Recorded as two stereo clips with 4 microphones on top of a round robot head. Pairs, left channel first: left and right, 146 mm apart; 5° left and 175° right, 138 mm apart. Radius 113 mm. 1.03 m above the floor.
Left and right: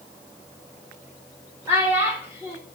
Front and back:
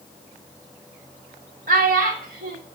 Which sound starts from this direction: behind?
A child speaking, at 1.7 s.